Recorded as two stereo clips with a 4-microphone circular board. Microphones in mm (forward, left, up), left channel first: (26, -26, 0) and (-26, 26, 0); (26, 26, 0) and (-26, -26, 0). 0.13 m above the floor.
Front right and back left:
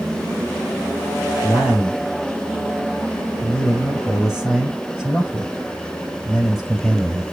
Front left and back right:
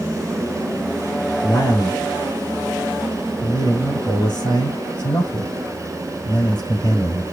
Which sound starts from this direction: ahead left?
A man speaking, at 1.4 s.